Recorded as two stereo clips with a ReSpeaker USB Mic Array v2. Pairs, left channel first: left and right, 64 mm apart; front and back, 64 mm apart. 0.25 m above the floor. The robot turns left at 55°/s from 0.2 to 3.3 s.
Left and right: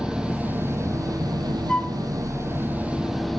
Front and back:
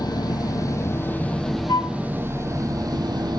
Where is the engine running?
10° right, 2 m; by 3.4 s straight behind, 2 m.